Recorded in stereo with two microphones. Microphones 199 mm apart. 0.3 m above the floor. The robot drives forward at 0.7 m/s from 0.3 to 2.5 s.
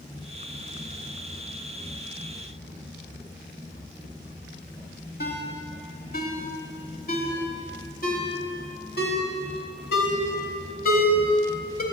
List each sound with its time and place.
5.2 s a ringtone: 50° left (ahead or behind), 1.1 m